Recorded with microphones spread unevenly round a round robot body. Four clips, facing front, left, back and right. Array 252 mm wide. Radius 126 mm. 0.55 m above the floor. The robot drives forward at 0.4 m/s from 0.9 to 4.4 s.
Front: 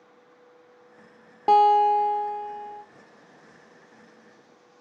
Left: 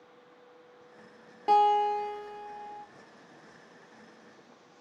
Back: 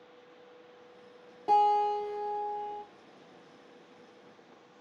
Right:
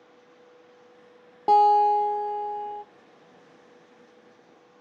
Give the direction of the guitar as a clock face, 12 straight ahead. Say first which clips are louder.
Right 6 dB, front 8 dB; 1 o'clock.